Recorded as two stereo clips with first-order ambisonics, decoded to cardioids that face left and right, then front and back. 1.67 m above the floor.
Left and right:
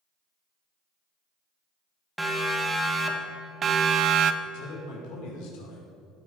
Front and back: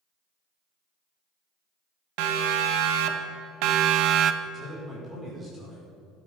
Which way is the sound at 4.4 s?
110° left.